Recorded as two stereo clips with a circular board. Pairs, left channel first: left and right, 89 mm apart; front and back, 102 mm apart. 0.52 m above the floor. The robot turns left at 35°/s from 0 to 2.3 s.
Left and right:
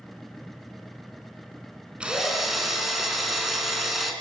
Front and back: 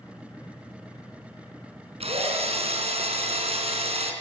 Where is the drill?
165° right, 4 m; by 4.1 s 175° right, 4 m.